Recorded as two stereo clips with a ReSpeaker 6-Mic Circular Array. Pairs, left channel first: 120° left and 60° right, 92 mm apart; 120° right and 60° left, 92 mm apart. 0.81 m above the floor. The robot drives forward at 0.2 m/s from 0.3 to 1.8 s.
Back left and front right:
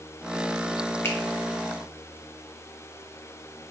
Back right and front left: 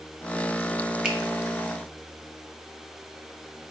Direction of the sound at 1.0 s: 130° left.